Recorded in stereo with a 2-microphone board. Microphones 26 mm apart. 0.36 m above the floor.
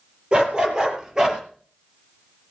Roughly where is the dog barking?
Right.